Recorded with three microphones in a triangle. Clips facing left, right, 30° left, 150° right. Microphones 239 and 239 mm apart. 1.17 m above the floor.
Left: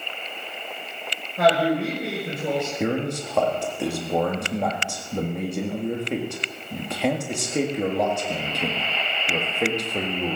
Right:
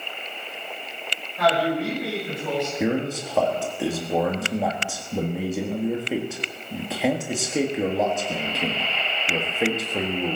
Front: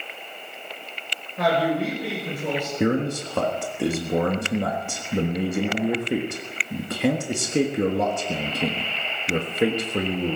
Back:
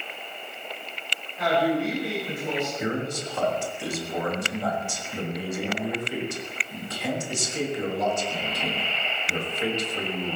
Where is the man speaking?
5° right, 1.5 m.